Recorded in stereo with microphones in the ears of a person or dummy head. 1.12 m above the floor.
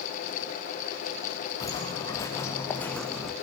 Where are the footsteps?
20° left (ahead or behind), 4.5 m; by 3.3 s centre (ahead or behind), 3 m.